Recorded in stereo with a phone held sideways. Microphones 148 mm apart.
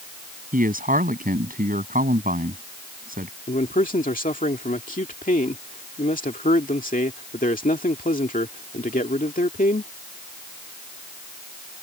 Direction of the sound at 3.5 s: 65° left (ahead or behind).